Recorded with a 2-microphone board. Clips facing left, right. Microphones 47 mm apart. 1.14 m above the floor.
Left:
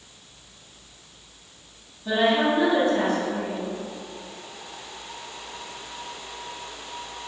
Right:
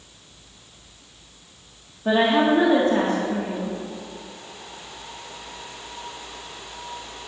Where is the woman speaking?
60° right (ahead or behind), 1.8 m.